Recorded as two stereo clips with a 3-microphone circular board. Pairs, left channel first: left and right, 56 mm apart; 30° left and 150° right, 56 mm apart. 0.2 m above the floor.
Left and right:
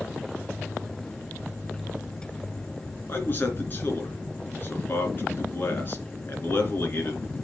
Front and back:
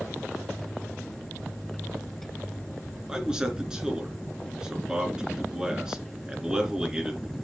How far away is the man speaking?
About 3 m.